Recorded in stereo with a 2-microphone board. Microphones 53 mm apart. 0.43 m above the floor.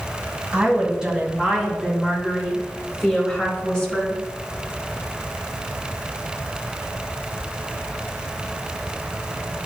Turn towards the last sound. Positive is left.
turn(degrees=20)  # may be behind; listen again after turning